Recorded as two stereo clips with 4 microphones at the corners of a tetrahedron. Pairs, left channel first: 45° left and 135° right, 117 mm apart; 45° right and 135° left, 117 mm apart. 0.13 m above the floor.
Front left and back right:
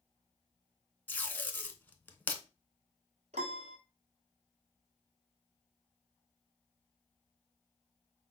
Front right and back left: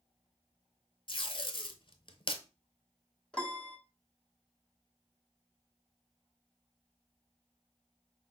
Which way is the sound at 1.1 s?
25° right.